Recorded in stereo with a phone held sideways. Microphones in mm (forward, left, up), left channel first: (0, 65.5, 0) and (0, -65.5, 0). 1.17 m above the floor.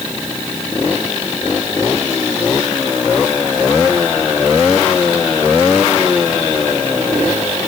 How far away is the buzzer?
I don't hear a buzzer.